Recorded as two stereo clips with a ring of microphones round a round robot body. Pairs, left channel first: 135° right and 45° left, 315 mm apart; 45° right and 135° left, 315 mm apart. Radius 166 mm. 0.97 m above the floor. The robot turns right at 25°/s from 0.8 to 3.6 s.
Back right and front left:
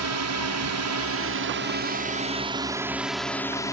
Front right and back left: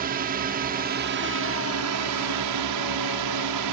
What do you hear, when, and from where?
0.0 s a drone: 75° left; by 3.7 s 145° left